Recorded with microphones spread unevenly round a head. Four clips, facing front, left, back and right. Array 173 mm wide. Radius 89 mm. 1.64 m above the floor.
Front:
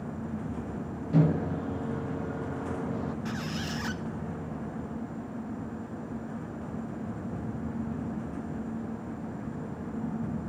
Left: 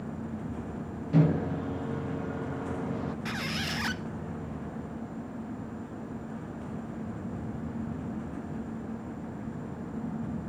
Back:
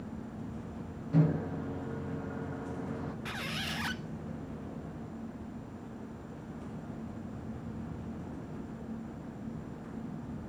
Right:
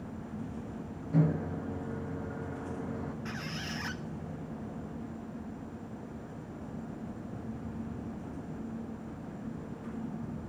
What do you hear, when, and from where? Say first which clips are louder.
1.1 s a microwave: left 4 dB, front 4 dB; 40° left, 0.6 m
3.2 s a squeak: left 5 dB, front 5 dB; 85° left, 0.8 m